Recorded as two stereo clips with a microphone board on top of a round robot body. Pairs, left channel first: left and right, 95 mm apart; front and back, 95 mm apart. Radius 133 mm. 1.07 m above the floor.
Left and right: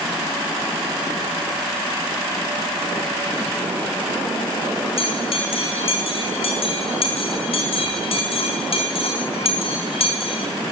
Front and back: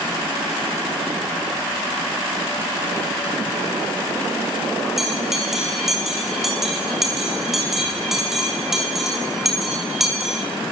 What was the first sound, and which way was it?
A bell, 95° left.